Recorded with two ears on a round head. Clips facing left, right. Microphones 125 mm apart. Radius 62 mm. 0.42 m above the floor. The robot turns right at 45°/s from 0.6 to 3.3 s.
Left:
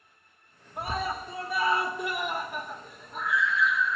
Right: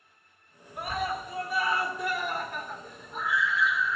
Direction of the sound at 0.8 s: 25° left (ahead or behind).